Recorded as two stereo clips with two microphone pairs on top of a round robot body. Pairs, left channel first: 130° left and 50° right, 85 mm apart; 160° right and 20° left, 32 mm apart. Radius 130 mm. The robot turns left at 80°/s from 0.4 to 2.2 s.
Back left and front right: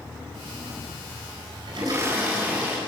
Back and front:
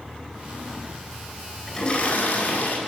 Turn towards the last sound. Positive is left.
turn(degrees=-130)